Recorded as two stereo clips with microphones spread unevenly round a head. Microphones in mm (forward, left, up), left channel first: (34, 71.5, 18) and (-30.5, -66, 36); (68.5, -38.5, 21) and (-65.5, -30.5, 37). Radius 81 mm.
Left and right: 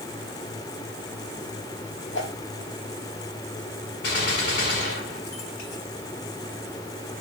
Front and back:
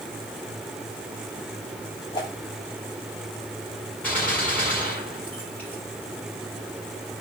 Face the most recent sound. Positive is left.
turn(degrees=80)